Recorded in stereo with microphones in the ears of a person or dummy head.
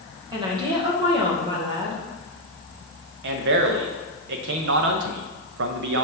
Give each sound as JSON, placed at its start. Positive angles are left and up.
{"t": 0.3, "sound": "a woman speaking", "side_deg": -20, "distance_m": 1.7}
{"t": 3.2, "sound": "a man speaking", "side_deg": -65, "distance_m": 0.9}